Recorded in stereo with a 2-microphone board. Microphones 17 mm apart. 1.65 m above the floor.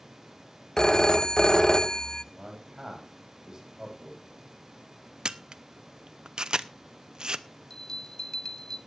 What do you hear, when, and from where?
0.8 s a phone ringing: 40° left (ahead or behind), 0.6 m
2.3 s a man speaking: 30° right (ahead or behind), 4 m
5.2 s a camera shutter: 55° right (ahead or behind), 0.6 m
7.7 s a bell: 45° left (ahead or behind), 0.6 m